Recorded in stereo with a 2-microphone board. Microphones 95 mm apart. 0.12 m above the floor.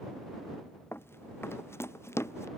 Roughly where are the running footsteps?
Left.